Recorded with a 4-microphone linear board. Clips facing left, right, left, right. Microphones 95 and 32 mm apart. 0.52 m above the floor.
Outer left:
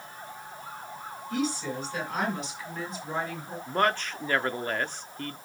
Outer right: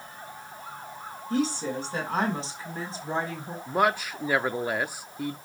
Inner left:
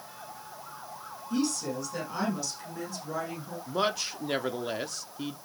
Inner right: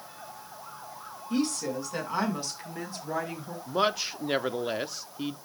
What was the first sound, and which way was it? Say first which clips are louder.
A woman speaking: outer right 3 dB, inner right 1 dB; 35° right (ahead or behind).